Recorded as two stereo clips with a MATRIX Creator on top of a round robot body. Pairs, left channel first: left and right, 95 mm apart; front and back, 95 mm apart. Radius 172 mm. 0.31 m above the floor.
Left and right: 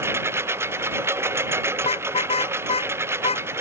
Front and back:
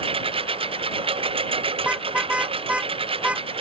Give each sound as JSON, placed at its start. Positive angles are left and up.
{"t": 0.0, "sound": "a lawn mower", "azimuth_deg": -155}
{"t": 1.8, "sound": "a car horn", "azimuth_deg": 100}